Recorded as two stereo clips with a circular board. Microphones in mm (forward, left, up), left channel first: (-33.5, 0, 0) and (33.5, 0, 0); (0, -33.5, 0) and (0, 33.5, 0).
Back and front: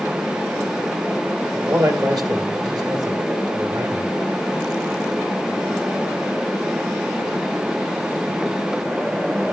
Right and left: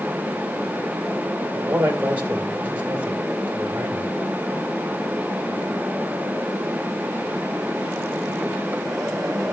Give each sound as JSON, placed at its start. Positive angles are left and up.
{"t": 1.5, "sound": "a man speaking", "azimuth_deg": 25, "distance_m": 2.0}